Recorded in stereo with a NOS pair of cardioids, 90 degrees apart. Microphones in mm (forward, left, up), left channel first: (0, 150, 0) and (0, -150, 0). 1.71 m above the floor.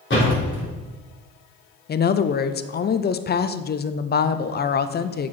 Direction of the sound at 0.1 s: 35° left.